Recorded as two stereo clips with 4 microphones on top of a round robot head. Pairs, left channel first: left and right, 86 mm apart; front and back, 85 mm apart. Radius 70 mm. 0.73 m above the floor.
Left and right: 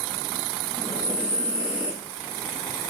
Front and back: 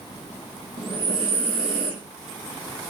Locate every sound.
0.8 s breathing: 165° left, 5.5 m